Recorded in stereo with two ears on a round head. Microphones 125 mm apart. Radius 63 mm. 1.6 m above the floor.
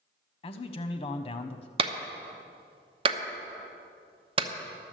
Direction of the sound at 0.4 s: 35° left (ahead or behind).